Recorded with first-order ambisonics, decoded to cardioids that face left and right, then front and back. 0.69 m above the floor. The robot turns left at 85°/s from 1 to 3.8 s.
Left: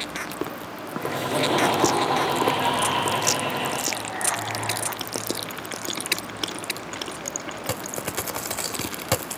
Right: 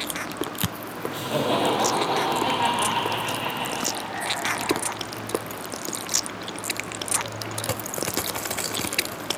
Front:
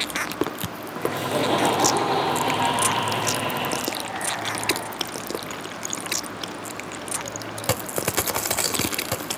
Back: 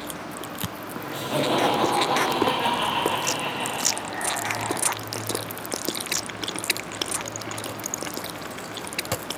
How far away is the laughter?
About 1.0 m.